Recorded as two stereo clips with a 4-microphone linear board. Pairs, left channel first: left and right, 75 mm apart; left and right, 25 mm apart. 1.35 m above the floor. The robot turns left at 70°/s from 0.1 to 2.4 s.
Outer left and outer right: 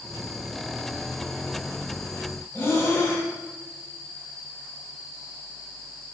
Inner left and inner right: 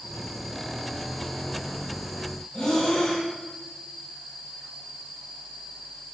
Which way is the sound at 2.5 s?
30° left (ahead or behind).